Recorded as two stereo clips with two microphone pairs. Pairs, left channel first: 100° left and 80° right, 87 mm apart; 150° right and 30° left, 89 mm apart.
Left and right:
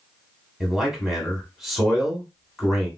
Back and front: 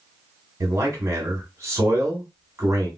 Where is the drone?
I don't hear a drone.